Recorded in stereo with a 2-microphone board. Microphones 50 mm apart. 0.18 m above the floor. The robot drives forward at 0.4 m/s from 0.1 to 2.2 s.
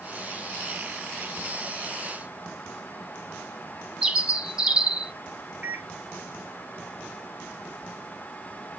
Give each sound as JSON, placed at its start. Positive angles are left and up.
{"t": 4.0, "sound": "a bird", "side_deg": -15, "distance_m": 0.7}
{"t": 5.6, "sound": "a microwave", "side_deg": -25, "distance_m": 1.2}